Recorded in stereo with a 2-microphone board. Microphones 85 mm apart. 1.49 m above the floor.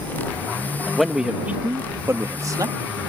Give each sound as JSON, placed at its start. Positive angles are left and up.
{"t": 0.9, "sound": "a man speaking", "side_deg": 0}